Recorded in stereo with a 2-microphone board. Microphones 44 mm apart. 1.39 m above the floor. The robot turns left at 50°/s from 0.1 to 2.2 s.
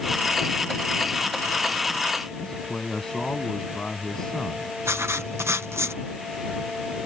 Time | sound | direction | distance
2.4 | a man speaking | 15° left (ahead or behind) | ?
4.8 | writing | 85° right | ?